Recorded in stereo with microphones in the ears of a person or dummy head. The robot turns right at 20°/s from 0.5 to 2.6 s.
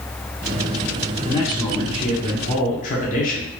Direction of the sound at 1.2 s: 25° left (ahead or behind).